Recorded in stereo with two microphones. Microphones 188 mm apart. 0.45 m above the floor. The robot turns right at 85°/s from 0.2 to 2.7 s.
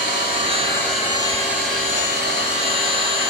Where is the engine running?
115° left, 1.9 m; by 3.3 s 30° right, 1.9 m.